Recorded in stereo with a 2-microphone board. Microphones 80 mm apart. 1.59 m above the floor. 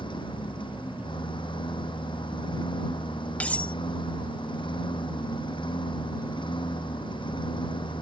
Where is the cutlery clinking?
15° left (ahead or behind).